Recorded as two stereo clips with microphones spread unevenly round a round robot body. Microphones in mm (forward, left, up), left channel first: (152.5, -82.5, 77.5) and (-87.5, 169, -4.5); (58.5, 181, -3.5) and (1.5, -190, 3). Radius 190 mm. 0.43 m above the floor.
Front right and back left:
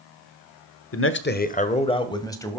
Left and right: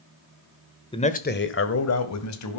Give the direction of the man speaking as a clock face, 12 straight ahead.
12 o'clock.